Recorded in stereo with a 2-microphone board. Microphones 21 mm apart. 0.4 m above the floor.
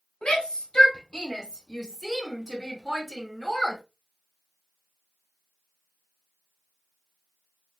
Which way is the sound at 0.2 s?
45° left (ahead or behind).